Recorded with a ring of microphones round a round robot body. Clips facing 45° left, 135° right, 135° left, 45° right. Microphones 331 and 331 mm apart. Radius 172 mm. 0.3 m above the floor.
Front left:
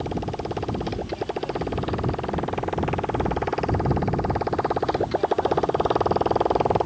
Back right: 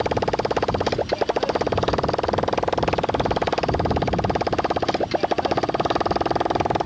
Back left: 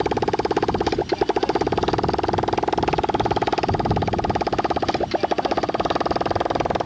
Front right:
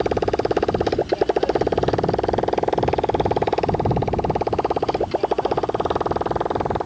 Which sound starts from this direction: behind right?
A motorcycle, at 0.0 s.